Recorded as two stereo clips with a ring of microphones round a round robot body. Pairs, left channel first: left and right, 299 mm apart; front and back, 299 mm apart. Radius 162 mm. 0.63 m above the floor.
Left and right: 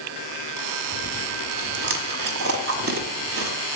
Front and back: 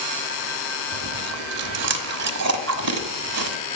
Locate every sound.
0.9 s chewing: 140° right, 1.3 m